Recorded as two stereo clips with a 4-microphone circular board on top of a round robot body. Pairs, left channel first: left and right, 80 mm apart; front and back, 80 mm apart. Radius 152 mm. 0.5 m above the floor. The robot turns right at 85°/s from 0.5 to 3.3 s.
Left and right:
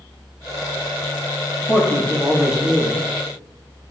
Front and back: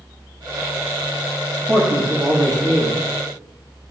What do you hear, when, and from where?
1.7 s a man speaking: 120° left, 1.4 m; by 3.0 s 130° right, 1.4 m